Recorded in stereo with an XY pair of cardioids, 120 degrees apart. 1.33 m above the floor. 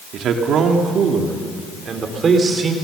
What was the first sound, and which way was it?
A man speaking, 65° right.